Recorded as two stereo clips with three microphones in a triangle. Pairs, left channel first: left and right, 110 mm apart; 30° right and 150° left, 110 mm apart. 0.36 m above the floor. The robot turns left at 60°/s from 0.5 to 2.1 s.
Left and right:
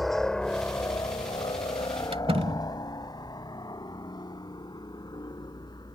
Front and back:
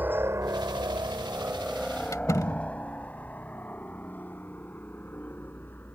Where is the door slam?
85° right.